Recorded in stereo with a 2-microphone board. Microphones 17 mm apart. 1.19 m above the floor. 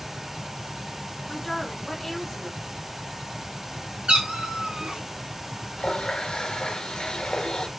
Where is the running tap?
70° left (ahead or behind), 0.8 m.